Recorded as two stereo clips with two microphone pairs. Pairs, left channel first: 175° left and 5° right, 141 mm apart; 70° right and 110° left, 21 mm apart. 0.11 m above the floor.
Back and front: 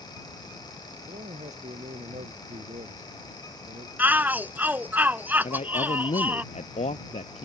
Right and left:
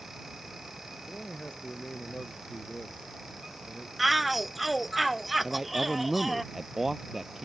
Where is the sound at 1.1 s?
40° right.